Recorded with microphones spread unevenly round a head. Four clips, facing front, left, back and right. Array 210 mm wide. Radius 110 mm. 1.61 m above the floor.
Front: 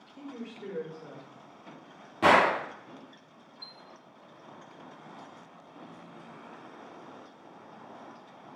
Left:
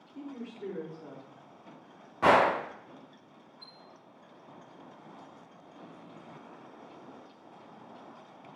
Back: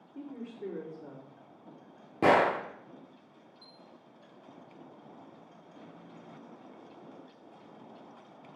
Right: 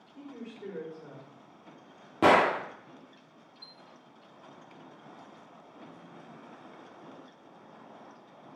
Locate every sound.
0.1 s a woman speaking: 155° left, 3.5 m
2.2 s a gunshot: 125° right, 1.0 m
3.6 s a chime: 160° left, 1.0 m